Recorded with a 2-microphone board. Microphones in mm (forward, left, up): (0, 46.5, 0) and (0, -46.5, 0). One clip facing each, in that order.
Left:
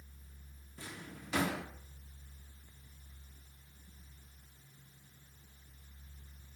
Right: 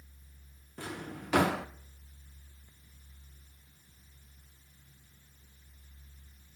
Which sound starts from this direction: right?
A drawer, at 0.8 s.